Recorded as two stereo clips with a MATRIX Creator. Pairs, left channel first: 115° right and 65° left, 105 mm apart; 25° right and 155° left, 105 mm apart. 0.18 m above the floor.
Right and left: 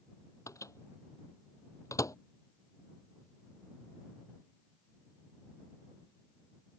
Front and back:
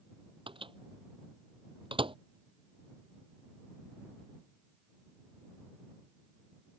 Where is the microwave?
170° right.